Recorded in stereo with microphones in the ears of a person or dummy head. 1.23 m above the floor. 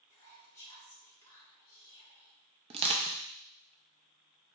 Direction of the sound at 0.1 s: 20° left (ahead or behind).